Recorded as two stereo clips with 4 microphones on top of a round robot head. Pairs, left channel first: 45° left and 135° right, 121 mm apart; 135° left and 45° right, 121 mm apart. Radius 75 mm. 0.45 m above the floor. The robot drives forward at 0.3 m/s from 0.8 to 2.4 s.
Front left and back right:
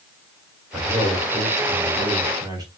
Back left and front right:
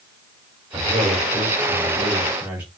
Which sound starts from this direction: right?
A man speaking, at 0.7 s.